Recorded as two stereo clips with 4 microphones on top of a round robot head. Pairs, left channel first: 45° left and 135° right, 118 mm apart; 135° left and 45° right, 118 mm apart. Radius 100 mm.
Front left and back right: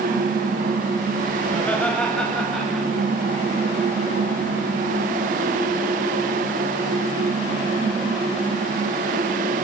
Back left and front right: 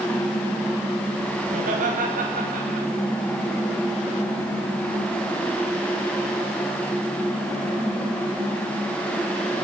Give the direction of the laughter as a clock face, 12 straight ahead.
1 o'clock.